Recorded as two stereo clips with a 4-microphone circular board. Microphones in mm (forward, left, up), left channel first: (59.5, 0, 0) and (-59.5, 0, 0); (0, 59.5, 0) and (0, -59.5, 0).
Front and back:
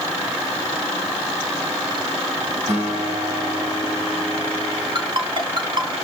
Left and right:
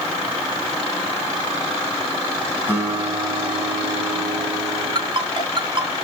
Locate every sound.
2.7 s a guitar: 160° left, 7 m
5.0 s a ringtone: 135° right, 2.5 m